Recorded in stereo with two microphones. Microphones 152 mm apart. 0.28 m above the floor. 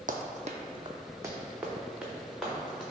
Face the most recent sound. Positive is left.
turn(degrees=0)  # may be behind; listen again after turning